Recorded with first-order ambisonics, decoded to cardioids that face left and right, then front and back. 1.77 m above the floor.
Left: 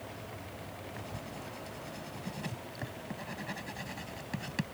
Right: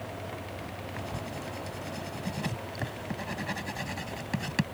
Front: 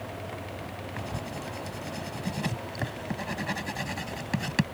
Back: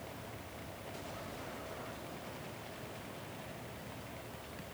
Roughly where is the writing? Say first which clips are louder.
Right 7 dB, front 9 dB; ahead.